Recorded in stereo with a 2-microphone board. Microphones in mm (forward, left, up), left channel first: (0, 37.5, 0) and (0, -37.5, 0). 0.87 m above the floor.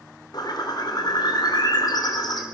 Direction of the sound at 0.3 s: 65° left (ahead or behind).